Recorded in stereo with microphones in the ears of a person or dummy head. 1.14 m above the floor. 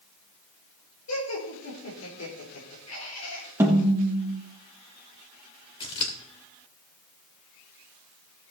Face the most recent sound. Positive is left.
turn(degrees=25)  # may be behind; listen again after turning